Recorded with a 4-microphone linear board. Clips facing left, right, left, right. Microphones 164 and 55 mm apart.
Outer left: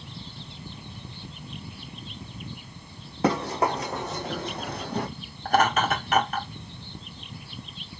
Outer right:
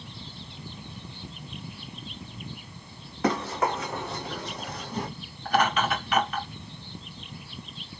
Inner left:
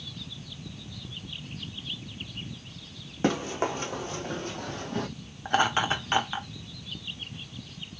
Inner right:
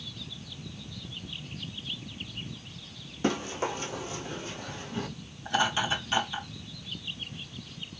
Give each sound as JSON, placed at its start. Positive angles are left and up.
{"t": 3.2, "sound": "running footsteps", "side_deg": 30, "distance_m": 2.0}
{"t": 5.5, "sound": "laughter", "side_deg": 45, "distance_m": 1.6}